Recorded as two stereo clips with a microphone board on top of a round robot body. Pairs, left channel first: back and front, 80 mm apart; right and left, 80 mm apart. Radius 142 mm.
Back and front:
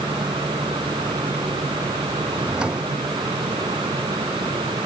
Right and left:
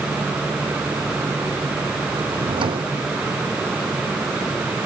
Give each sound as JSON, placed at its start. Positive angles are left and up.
{"t": 2.3, "sound": "a drawer", "azimuth_deg": 80}